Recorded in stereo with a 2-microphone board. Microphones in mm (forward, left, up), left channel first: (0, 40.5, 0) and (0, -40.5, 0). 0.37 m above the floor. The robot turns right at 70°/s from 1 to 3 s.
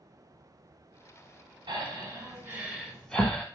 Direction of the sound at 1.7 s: 85° right.